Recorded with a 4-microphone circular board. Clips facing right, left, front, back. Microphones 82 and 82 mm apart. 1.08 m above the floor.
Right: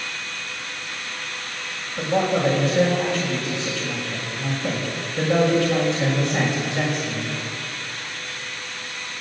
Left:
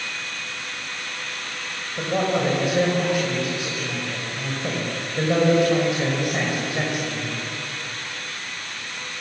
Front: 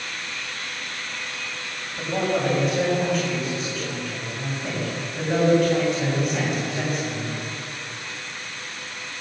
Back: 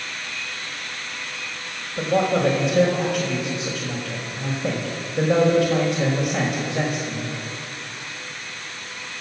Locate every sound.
2.0 s a man speaking: 165° left, 5.5 m